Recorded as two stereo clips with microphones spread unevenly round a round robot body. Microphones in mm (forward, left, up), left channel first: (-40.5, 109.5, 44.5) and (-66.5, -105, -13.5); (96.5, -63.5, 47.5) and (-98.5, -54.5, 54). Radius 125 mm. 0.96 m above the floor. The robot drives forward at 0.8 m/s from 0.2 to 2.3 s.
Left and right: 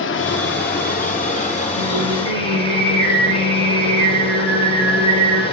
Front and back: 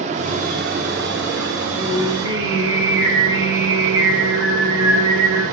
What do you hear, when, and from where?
0.0 s running water: 115° left, 1.5 m; by 5.5 s 150° left, 2.5 m
1.8 s singing: 110° right, 9.5 m; by 5.4 s 115° right, 9.5 m